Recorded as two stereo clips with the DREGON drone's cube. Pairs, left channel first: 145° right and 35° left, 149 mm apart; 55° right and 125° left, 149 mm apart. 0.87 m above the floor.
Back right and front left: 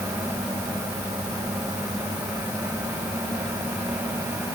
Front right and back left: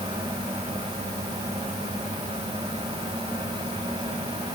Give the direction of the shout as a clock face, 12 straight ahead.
No shout in this recording.